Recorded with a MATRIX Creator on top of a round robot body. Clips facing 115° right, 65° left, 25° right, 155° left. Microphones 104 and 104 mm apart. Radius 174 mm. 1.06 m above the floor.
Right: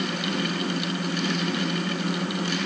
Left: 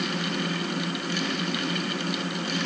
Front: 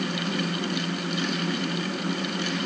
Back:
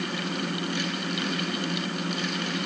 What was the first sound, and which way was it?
Only background noise.